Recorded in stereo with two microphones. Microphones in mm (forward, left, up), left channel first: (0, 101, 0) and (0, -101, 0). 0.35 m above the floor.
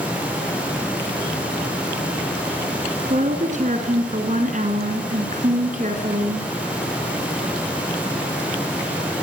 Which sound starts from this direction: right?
A woman speaking, at 3.1 s.